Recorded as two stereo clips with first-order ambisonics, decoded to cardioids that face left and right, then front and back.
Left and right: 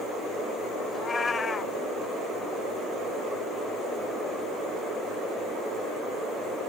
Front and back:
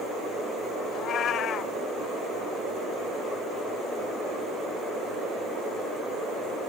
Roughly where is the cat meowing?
Ahead left.